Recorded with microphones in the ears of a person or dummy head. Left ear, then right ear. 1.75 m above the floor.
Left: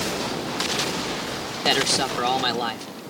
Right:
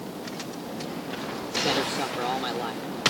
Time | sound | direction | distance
1.6 | a man speaking | 55° left (ahead or behind) | ?